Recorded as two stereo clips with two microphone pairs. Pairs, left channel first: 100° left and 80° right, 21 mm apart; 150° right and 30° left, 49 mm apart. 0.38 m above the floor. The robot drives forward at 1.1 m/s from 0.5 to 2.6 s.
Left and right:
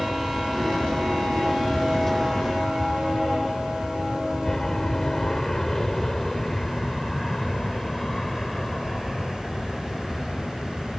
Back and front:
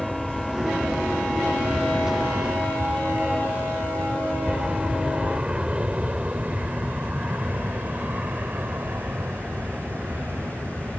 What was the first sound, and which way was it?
An aircraft, 125° left.